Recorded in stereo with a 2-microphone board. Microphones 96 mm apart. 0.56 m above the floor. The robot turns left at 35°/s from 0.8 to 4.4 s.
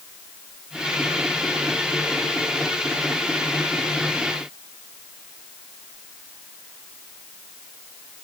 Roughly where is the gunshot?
I don't hear a gunshot.